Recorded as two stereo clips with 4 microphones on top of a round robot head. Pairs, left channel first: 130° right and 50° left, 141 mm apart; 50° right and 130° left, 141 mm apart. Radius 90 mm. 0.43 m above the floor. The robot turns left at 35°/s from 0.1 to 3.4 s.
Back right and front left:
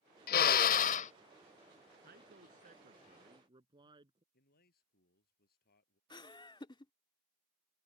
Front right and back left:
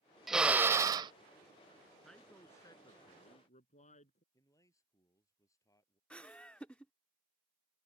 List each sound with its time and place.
0.3 s a drill: 140° right; by 1.1 s 170° right
2.0 s a man speaking: 40° left; by 4.2 s 10° right
4.3 s a man speaking: 120° right
6.1 s laughter: 125° right